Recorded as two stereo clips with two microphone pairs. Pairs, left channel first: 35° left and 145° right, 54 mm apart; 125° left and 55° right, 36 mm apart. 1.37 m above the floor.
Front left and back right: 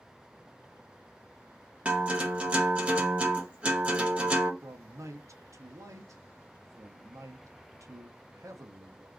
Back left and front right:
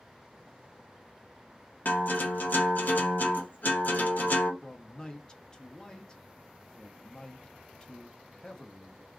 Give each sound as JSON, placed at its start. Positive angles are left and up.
{"t": 1.9, "sound": "a guitar", "azimuth_deg": 155, "distance_m": 0.8}
{"t": 4.6, "sound": "a man speaking", "azimuth_deg": -165, "distance_m": 0.7}